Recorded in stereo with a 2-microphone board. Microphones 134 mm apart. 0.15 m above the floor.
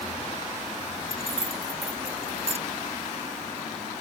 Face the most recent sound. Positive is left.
turn(degrees=-50)  # may be behind; listen again after turning